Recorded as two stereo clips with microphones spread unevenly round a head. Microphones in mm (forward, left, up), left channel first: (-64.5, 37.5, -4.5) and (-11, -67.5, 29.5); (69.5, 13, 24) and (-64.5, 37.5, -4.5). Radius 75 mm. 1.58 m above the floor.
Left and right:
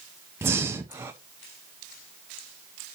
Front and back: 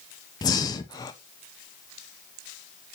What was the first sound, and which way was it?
Breathing, 30° right.